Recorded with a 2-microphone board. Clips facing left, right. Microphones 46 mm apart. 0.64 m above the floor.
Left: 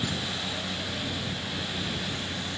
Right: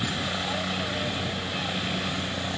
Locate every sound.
0.0 s a helicopter: 35° right (ahead or behind); by 2.6 s 45° right (ahead or behind)